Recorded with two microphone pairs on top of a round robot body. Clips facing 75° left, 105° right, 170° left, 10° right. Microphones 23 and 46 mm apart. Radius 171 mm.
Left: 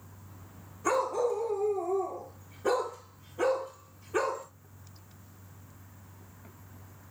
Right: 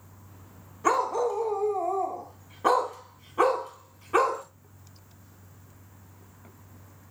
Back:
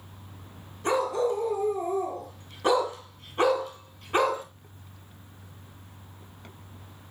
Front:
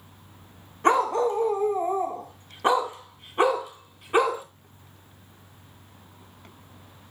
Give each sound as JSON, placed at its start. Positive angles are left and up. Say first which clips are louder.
{"t": 0.8, "sound": "a dog barking", "louder": "right 3 dB, front 4 dB", "azimuth_deg": -50, "distance_m": 3.0}